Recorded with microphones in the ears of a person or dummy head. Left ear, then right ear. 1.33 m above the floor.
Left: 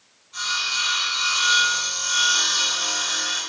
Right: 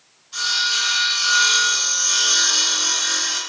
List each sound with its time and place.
0.3 s sawing: 65° right (ahead or behind), 2 m